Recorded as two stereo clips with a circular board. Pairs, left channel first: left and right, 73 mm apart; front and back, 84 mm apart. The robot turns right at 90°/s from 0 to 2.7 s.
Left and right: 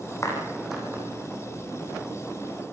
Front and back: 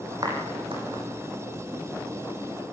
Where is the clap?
140° left, 8 m; by 1.0 s 150° right, 8 m.